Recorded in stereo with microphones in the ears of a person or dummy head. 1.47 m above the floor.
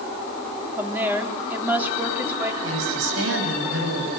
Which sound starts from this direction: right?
A woman speaking, at 2.6 s.